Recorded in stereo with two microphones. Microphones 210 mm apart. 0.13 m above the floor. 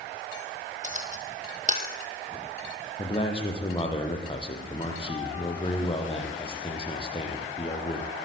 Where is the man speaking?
25° left (ahead or behind), 5.5 m.